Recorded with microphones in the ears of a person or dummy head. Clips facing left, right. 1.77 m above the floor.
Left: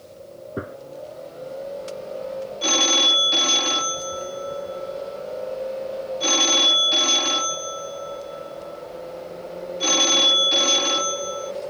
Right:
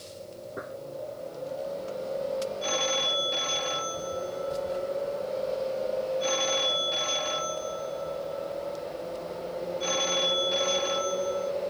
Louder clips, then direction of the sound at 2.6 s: Left 4 dB; 65° left (ahead or behind).